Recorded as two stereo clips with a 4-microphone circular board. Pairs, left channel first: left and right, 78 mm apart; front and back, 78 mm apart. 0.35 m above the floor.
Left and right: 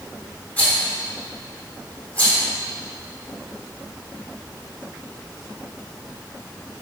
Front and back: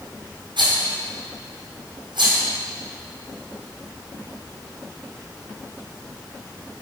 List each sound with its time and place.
0.6 s a rattle: 160° left, 2.5 m